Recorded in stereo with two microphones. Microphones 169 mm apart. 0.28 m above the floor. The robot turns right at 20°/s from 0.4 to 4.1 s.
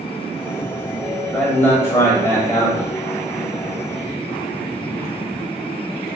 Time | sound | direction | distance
1.3 | a man speaking | 10° left (ahead or behind) | 1.2 m